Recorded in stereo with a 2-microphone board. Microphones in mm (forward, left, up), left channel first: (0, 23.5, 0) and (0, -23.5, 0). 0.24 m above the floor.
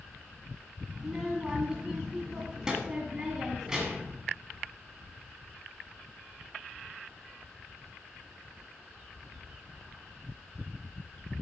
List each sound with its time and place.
1.0 s a child speaking: 15° right (ahead or behind), 1.6 m